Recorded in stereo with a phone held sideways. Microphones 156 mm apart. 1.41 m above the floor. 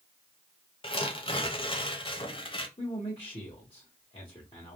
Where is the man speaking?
35° left (ahead or behind), 1.1 m.